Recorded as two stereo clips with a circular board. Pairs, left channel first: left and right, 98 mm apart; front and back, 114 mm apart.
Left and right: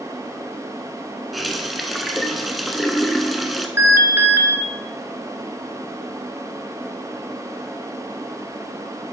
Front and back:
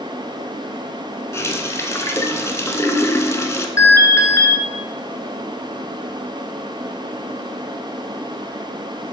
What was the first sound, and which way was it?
A running tap, straight ahead.